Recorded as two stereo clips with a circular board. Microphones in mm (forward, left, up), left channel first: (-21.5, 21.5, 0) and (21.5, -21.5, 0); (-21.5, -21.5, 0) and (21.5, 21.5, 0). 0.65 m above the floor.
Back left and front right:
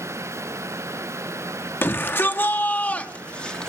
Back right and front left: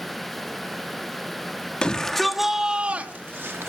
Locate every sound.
1.8 s a shout: 160° left, 1.2 m; by 3.7 s 60° left, 1.3 m